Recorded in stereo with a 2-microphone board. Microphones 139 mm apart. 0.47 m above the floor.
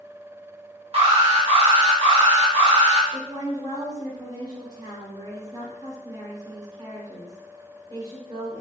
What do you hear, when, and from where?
0.9 s an alarm: 45° right (ahead or behind), 0.9 m
3.1 s a woman speaking: 30° right (ahead or behind), 1.2 m